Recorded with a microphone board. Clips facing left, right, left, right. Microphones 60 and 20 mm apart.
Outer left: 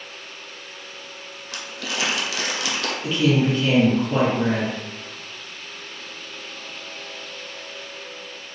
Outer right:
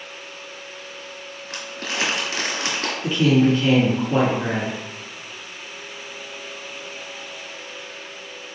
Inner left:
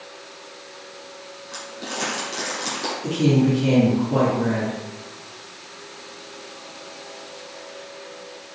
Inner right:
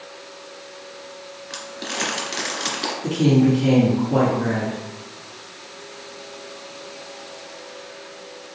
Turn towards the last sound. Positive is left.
turn(degrees=-10)  # may be behind; listen again after turning